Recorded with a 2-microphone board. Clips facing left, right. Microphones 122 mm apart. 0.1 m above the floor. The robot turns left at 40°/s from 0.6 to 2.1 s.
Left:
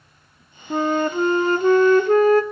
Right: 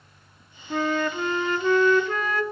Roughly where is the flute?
Behind left.